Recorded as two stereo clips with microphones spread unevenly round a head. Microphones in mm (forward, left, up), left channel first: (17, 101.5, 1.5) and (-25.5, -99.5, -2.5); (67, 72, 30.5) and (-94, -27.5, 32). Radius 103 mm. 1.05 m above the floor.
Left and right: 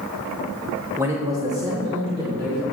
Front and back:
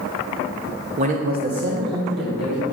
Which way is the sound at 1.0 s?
175° right.